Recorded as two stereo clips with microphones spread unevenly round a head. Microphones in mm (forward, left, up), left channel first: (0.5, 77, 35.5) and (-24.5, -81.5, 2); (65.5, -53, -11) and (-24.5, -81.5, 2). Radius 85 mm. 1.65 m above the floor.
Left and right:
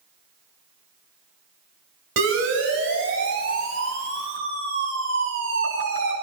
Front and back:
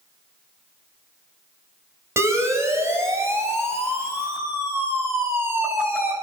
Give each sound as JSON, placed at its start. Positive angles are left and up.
{"t": 2.2, "sound": "a siren", "azimuth_deg": -105, "distance_m": 9.0}